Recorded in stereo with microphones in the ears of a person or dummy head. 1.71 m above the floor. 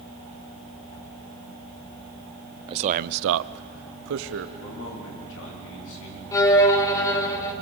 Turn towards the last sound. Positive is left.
turn(degrees=10)  # may be behind; listen again after turning